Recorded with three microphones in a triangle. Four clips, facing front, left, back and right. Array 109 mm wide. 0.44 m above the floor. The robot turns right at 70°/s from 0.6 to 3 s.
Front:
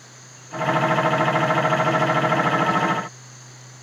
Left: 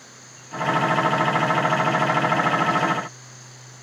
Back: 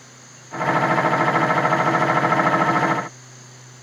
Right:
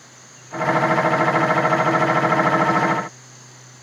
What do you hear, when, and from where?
Only background noise.